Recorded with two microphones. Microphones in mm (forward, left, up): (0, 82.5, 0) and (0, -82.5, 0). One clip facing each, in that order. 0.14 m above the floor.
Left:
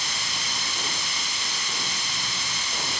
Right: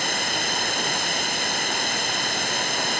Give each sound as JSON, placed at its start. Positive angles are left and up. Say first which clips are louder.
{"t": 0.0, "sound": "running water", "louder": "right 9 dB", "side_deg": -65}